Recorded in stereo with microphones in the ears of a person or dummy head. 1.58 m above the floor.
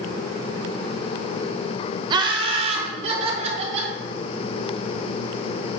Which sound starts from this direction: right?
Laughter, at 2.1 s.